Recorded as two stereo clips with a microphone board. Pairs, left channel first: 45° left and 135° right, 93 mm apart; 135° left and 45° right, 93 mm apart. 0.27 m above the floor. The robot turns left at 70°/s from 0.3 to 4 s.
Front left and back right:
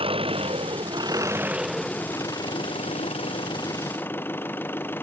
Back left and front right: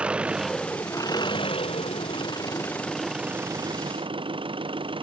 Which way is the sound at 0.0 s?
125° right.